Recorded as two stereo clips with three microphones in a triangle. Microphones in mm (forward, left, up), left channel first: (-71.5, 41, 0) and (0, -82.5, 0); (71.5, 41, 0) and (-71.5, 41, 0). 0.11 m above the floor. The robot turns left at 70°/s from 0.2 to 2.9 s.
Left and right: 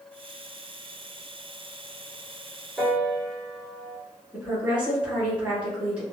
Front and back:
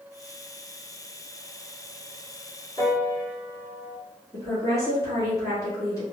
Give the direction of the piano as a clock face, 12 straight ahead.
11 o'clock.